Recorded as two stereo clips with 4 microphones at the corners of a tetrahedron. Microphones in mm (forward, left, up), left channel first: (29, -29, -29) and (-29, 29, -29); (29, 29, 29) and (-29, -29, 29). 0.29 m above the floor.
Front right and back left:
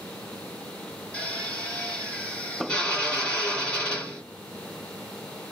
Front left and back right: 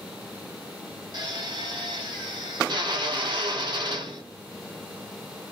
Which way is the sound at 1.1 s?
120° right.